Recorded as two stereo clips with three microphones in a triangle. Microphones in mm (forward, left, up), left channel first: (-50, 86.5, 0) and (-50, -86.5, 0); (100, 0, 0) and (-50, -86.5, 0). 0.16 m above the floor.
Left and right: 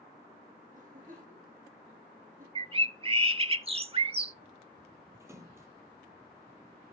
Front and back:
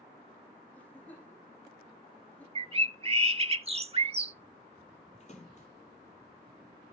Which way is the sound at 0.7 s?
50° right.